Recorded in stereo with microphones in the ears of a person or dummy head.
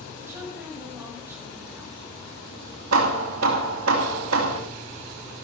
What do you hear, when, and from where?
0.2 s a woman speaking: 10° right (ahead or behind), 7.5 m
2.9 s hammering: 75° right (ahead or behind), 2.5 m